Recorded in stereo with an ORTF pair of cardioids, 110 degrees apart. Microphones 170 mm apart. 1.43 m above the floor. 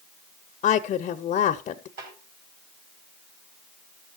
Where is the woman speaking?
50° left, 0.7 m.